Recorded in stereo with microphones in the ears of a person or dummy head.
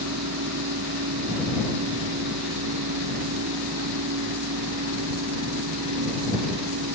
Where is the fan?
75° right (ahead or behind).